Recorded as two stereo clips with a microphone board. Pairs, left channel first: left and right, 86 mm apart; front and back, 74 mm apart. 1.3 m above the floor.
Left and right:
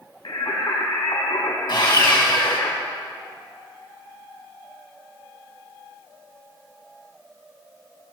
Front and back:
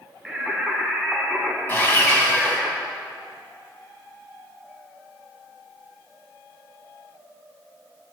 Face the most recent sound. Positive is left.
turn(degrees=65)